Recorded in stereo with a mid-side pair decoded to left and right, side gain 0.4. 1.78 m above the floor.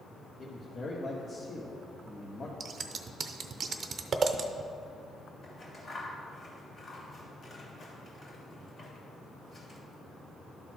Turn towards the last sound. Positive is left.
turn(degrees=50)